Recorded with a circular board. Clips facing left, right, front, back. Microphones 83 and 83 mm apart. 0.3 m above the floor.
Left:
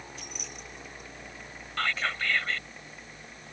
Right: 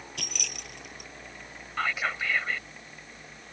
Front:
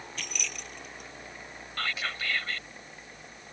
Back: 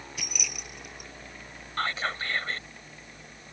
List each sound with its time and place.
0.2 s keys jangling: 100° right
1.8 s whispering: 160° right